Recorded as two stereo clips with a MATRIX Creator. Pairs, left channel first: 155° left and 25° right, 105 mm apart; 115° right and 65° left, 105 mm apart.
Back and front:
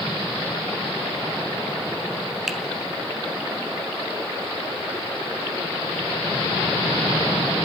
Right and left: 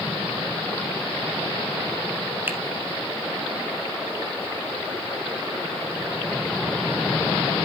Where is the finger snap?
60° left, 1.0 m.